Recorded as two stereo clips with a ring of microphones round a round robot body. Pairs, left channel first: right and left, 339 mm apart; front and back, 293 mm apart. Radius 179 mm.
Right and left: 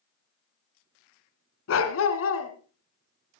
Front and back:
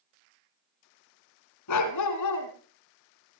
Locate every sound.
1.7 s a dog barking: 40° right, 1.8 m